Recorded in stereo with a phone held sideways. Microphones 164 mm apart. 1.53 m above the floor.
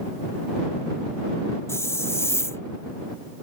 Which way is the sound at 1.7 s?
15° left (ahead or behind).